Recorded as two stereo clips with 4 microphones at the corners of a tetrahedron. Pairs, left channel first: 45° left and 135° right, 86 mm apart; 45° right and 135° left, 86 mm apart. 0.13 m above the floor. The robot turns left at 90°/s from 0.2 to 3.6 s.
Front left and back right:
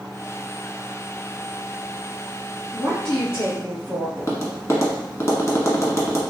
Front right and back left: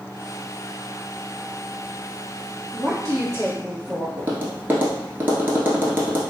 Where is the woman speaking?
150° left, 1.9 m; by 4.1 s 75° left, 1.9 m.